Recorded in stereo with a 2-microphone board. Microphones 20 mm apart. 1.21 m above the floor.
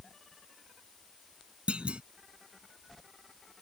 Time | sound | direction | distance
1.7 | a clunk | 80° right | ?